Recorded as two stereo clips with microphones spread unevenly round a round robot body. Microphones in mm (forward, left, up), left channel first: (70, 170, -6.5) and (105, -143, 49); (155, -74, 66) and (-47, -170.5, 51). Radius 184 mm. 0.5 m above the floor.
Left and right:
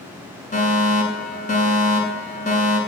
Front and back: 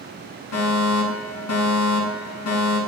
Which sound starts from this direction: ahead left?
A fire alarm, at 0.5 s.